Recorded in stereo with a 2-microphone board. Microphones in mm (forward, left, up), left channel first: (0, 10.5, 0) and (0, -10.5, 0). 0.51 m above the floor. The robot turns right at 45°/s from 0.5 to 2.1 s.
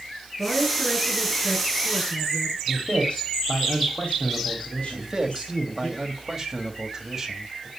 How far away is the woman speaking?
About 7 m.